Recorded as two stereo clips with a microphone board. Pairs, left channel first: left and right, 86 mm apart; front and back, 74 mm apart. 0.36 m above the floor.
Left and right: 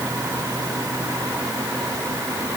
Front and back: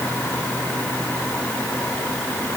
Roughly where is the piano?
I don't hear a piano.